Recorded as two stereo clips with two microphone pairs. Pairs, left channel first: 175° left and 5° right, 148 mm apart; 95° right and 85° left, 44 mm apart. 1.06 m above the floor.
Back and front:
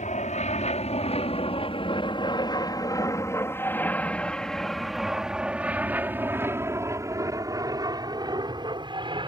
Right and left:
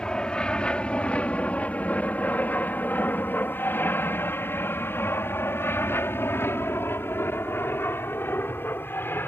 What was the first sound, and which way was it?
An aircraft, 165° right.